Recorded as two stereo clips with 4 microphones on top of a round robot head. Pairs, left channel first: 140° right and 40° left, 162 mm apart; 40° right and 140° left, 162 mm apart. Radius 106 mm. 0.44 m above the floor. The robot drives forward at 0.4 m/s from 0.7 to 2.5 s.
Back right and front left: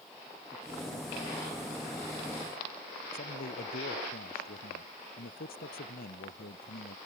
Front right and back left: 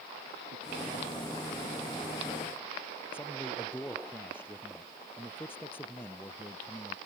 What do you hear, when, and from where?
3.1 s a man speaking: 115° right